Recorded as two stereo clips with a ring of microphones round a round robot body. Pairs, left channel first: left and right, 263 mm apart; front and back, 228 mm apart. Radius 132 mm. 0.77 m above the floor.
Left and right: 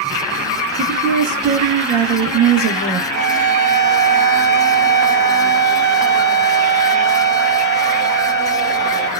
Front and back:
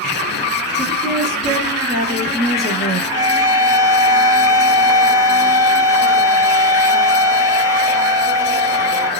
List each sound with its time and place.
0.8 s a woman speaking: 60° right, 1.3 m
3.1 s a violin: 40° right, 1.1 m